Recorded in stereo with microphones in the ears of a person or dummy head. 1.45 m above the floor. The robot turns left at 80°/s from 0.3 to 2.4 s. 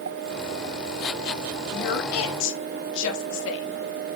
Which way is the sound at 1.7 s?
50° left (ahead or behind).